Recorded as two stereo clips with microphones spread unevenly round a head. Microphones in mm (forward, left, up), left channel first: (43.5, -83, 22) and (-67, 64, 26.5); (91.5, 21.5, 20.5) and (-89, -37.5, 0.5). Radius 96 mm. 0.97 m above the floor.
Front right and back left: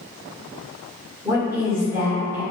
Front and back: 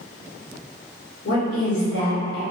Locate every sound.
1.2 s a woman speaking: 50° left, 1.2 m